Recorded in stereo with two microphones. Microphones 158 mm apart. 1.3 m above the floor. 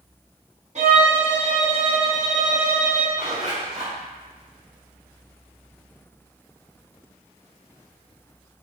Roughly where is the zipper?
Right.